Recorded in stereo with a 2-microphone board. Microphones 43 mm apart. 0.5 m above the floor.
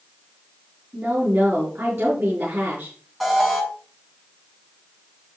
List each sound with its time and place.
0.9 s a woman speaking: 75° right (ahead or behind), 5.5 m
3.2 s an alarm: 10° right (ahead or behind), 6 m